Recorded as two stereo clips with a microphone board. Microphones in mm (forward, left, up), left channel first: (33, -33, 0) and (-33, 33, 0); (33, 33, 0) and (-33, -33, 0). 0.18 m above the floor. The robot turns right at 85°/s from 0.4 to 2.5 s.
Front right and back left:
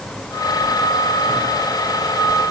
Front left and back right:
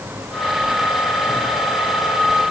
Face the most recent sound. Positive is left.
No sound to turn to.